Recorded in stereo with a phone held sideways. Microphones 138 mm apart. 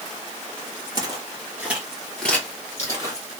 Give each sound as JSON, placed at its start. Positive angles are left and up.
{"t": 0.9, "sound": "footsteps", "side_deg": -30, "distance_m": 1.4}